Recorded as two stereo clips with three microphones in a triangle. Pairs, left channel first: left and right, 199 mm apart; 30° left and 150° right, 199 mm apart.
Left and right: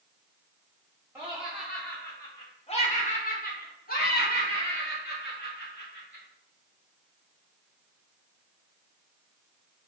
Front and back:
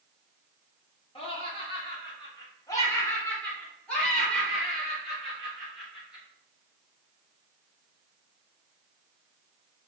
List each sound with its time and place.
1.1 s laughter: 15° right, 1.1 m; by 6.2 s 125° left, 3 m